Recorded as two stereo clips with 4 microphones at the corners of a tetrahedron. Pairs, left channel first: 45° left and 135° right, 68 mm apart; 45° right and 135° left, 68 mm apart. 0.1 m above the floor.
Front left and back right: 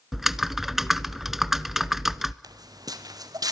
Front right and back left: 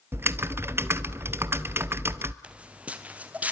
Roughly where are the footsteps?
Behind right.